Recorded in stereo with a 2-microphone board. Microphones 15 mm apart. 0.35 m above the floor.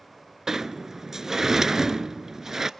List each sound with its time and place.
0.5 s a sliding door: 25° right (ahead or behind), 0.7 m